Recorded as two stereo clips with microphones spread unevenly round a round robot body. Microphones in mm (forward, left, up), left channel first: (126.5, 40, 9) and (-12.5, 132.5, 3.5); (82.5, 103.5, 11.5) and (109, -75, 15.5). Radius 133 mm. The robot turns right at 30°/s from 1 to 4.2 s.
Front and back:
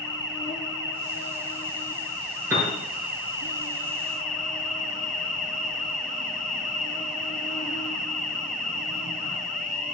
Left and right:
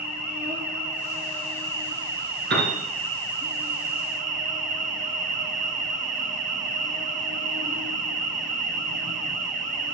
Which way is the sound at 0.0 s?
135° right.